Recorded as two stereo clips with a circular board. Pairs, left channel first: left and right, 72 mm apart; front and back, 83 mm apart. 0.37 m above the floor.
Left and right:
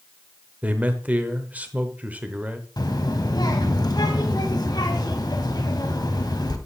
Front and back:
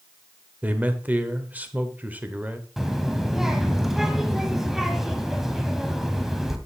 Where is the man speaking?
130° right, 0.9 m.